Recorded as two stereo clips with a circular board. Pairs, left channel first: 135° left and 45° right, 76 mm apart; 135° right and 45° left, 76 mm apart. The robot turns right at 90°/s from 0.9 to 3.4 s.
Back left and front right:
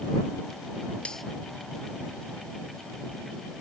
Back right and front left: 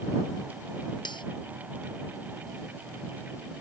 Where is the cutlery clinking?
150° right; by 1.2 s 130° right.